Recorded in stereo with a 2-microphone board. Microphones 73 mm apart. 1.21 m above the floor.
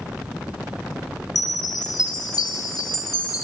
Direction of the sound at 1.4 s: 60° left (ahead or behind).